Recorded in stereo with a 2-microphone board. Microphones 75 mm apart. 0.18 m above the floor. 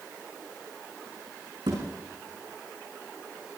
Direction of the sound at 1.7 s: 70° right (ahead or behind).